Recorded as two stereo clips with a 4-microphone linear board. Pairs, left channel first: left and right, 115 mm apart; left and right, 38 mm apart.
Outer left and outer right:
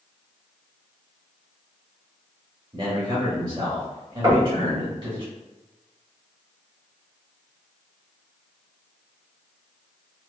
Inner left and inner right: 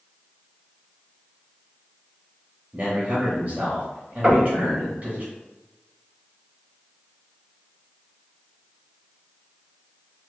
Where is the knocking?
35° right (ahead or behind), 1.3 m.